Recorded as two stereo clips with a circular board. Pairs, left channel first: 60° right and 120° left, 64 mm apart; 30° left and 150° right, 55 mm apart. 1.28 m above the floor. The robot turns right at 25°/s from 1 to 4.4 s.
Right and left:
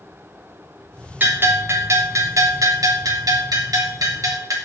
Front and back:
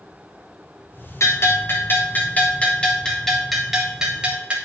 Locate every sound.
1.2 s a bell: 60° left, 3 m; by 4.5 s 140° left, 3 m